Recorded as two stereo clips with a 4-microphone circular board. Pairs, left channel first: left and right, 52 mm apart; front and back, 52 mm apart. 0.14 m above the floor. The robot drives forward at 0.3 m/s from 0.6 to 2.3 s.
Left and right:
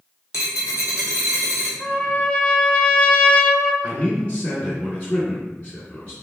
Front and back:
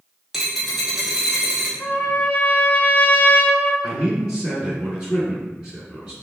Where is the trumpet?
35° left, 0.7 m; by 3.7 s 50° left, 0.7 m.